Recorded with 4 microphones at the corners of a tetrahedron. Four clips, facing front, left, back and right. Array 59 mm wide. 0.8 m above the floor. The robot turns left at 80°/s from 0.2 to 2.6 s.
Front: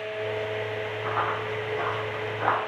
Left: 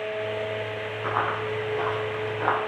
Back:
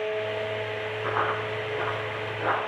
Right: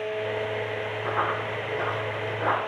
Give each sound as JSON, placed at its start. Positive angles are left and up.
{"t": 1.0, "sound": "running footsteps", "azimuth_deg": 115, "distance_m": 2.0}